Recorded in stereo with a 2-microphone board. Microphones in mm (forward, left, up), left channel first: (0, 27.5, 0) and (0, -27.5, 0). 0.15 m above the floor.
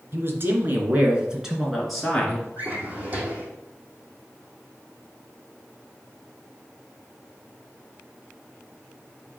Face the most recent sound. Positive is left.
turn(degrees=-30)  # may be behind; listen again after turning